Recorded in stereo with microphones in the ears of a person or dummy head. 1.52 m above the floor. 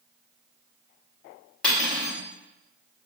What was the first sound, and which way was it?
Cutlery clinking, centre (ahead or behind).